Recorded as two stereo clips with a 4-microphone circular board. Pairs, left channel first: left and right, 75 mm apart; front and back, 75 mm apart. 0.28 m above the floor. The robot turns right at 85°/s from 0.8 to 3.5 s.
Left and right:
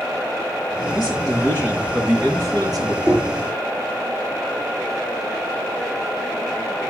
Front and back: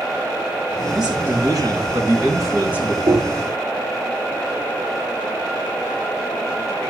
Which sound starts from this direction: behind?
Knocking, at 3.0 s.